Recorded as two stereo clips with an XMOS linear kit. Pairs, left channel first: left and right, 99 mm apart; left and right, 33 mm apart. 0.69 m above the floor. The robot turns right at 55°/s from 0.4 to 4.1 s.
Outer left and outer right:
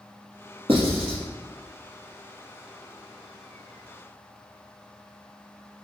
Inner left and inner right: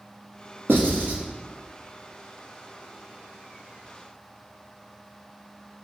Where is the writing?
70° right (ahead or behind), 1.5 m; by 1.2 s 55° right (ahead or behind), 1.5 m.